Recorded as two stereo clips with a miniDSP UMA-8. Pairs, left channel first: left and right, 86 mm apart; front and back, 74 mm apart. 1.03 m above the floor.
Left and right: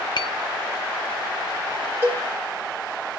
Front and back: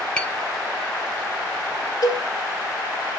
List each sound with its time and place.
0.2 s tapping: 75° left, 0.8 m
2.0 s a cowbell: 25° right, 4 m